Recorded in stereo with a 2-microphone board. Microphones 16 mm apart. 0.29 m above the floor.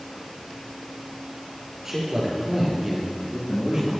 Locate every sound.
1.9 s a man speaking: 20° right (ahead or behind), 5 m; by 3.9 s 25° right (ahead or behind), 6.5 m